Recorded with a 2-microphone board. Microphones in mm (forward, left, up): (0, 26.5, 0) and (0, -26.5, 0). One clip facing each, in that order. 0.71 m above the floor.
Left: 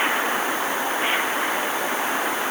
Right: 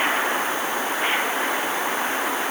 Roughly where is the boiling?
I don't hear boiling.